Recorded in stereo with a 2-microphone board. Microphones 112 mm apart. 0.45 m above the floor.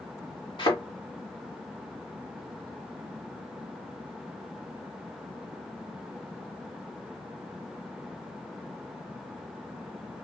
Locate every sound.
0.6 s a thud: 50° left (ahead or behind), 1.9 m